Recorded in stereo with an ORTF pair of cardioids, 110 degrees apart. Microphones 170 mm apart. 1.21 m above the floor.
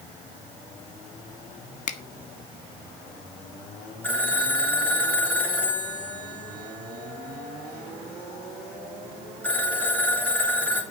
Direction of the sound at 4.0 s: 10° left.